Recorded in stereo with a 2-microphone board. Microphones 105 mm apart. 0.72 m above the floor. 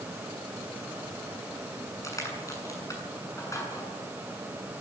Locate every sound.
2.0 s crushing: 30° left (ahead or behind), 7 m